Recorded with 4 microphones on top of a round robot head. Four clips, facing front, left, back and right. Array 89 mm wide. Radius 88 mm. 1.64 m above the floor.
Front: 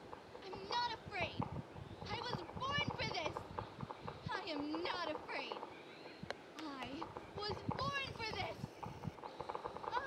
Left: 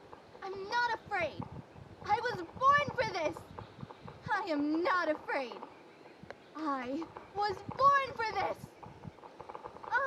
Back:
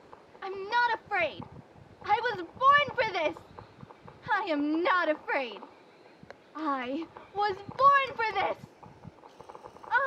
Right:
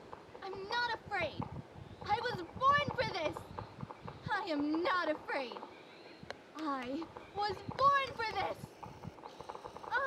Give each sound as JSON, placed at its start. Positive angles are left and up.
{"t": 0.4, "sound": "a shout", "azimuth_deg": 165}